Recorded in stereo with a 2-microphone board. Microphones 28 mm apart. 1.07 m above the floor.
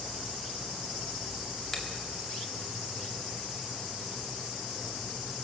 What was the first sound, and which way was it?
A finger snap, 10° left (ahead or behind).